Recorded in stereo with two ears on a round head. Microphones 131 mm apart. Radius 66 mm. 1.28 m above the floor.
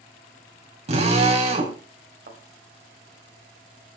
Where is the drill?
50° right (ahead or behind), 3 m.